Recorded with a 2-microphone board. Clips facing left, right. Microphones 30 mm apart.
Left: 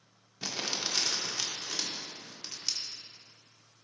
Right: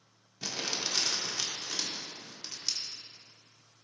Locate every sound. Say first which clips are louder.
0.4 s crumpling: even; 10° left (ahead or behind), 0.9 m